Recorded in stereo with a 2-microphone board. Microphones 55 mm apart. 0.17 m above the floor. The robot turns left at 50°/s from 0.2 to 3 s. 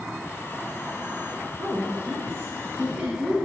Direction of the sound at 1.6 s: 80° right.